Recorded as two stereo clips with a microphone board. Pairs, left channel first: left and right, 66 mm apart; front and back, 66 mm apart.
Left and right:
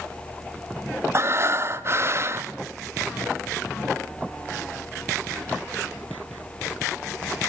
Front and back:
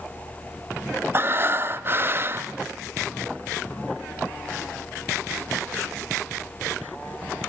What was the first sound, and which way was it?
Breathing, 130° right.